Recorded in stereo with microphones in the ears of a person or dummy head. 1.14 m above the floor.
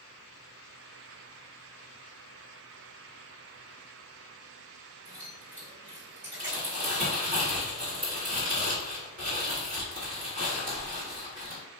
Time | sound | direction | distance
5.0 | keys jangling | 25° right (ahead or behind) | 1.9 m
6.4 | crumpling | 35° right (ahead or behind) | 1.9 m